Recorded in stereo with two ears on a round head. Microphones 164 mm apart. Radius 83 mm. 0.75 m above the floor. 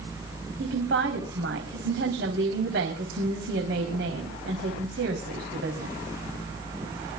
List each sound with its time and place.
0.6 s a woman speaking: 60° right (ahead or behind), 4 m